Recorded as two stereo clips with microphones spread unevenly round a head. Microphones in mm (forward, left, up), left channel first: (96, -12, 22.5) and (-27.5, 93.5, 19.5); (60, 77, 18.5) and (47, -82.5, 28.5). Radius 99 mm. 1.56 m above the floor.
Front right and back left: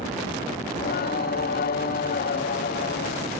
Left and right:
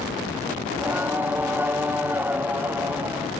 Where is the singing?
20° right, 0.6 m.